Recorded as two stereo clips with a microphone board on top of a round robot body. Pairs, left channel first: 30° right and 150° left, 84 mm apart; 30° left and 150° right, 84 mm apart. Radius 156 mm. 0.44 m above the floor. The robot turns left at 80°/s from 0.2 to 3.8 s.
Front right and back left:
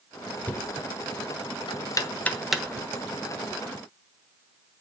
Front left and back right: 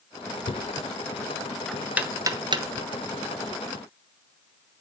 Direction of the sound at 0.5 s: 40° left.